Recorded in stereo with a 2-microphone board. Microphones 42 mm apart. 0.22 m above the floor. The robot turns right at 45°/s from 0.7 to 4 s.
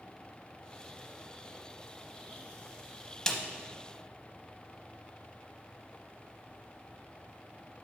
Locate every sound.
3.3 s a snare drum: 15° left (ahead or behind), 0.7 m